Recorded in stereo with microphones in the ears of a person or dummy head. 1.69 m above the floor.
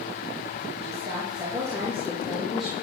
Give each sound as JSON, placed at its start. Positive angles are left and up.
{"t": 0.8, "sound": "a woman speaking", "side_deg": -35, "distance_m": 3.0}